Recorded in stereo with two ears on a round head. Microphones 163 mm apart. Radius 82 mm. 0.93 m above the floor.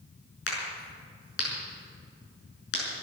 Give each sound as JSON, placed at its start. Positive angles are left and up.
{"t": 0.5, "sound": "a crack", "side_deg": 65, "distance_m": 6.0}